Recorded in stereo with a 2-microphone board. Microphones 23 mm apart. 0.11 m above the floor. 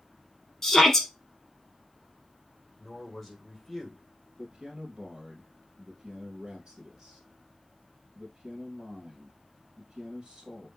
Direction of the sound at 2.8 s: 5° left (ahead or behind).